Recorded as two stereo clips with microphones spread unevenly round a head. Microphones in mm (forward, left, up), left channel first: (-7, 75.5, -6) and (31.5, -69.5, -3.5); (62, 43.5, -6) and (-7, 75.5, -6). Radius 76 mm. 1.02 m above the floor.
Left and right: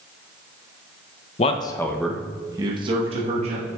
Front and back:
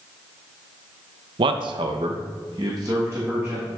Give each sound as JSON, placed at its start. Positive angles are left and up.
{"t": 1.4, "sound": "a man speaking", "azimuth_deg": 155, "distance_m": 0.5}